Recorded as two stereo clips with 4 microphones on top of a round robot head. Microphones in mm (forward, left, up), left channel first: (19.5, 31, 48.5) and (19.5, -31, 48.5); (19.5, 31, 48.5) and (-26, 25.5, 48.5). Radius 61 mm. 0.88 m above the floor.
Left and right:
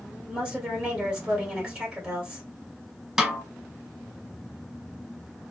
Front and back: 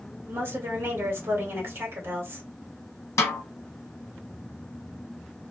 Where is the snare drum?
5° right, 1.4 m.